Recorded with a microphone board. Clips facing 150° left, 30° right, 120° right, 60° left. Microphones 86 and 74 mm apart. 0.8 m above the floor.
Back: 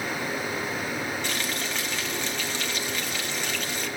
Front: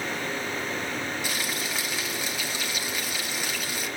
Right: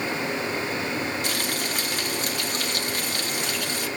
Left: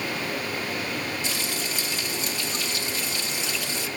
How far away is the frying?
About 1.8 m.